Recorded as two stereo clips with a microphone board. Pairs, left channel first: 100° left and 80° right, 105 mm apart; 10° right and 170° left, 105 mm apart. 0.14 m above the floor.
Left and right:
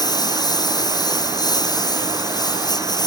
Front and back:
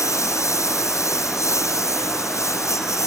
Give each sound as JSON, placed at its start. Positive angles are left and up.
{"t": 0.0, "sound": "a lawn mower", "azimuth_deg": 50}